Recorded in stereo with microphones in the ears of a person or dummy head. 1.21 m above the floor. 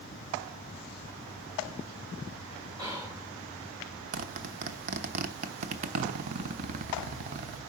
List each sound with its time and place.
2.8 s whispering: 25° right (ahead or behind), 1.9 m
4.1 s a zipper: 45° right (ahead or behind), 1.1 m